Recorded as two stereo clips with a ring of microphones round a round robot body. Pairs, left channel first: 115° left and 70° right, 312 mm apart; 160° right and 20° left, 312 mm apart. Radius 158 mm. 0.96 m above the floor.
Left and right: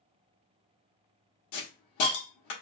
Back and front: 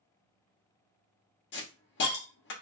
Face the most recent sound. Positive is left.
turn(degrees=150)